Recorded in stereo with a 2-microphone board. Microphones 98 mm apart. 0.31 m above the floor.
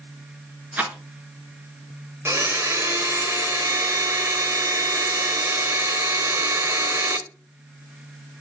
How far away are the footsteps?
I don't hear footsteps.